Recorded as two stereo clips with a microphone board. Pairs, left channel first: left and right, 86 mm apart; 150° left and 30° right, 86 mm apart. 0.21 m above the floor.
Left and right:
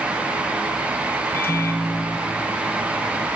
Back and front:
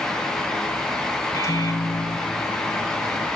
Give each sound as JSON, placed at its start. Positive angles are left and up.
{"t": 1.3, "sound": "a microwave", "azimuth_deg": 135, "distance_m": 1.1}